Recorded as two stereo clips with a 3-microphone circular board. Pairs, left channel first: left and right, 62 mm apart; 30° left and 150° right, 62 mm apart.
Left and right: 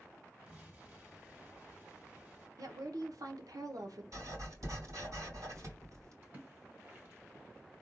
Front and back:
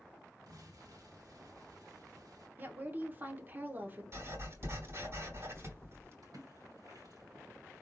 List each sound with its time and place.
0.5 s an explosion: 150° right, 2.5 m
2.6 s a woman speaking: 95° right, 1.0 m
4.1 s writing: 110° right, 3.5 m
6.2 s a splash: 145° right, 2.5 m